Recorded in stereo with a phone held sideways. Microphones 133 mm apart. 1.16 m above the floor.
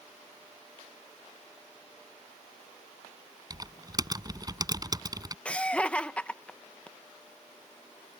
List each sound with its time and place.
3.5 s typing on a keyboard: 30° right (ahead or behind)
5.5 s laughter: 10° left (ahead or behind)